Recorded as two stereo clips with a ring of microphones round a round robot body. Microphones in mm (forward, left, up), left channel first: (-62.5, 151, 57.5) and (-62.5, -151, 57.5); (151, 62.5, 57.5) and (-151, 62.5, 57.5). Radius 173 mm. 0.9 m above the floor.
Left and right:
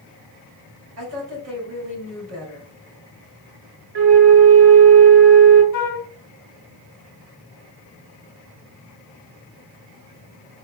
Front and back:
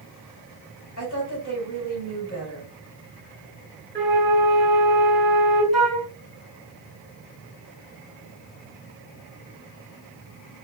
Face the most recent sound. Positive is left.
turn(degrees=90)